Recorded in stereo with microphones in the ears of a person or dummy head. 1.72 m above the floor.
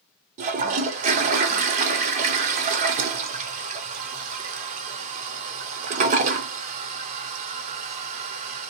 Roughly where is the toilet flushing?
Right.